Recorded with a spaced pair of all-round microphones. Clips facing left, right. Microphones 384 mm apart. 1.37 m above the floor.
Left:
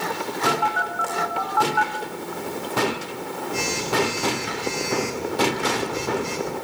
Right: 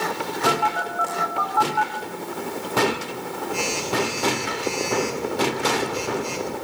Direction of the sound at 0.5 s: 30° left (ahead or behind).